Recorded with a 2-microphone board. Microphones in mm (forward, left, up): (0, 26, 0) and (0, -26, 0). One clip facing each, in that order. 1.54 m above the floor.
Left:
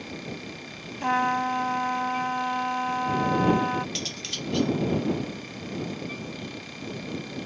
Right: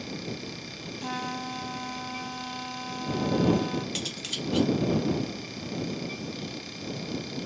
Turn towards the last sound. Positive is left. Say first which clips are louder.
# even
turn(degrees=-5)  # may be behind; listen again after turning